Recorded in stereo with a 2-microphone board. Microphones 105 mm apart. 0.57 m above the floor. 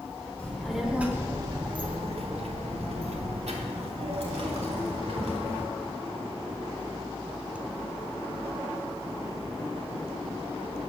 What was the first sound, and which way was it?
A child speaking, 10° left (ahead or behind).